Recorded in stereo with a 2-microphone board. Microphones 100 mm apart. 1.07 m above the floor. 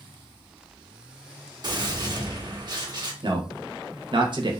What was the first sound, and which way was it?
A gunshot, 40° right (ahead or behind).